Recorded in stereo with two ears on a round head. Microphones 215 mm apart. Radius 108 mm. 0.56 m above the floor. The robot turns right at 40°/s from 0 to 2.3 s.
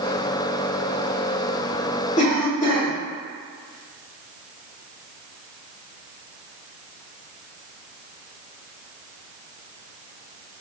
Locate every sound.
2.2 s a cough: 30° left (ahead or behind), 1.2 m; by 2.9 s 35° left (ahead or behind), 1.2 m